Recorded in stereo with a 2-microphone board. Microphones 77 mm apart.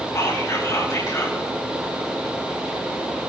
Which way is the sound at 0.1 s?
45° left (ahead or behind).